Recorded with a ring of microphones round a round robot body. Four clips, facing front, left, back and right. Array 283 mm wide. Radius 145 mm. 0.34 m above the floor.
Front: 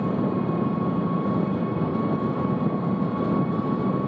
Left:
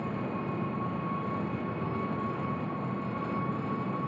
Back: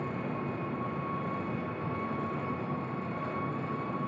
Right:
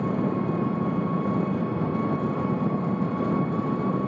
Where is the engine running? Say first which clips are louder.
Right 8 dB, front 11 dB; 35° right, 3 m.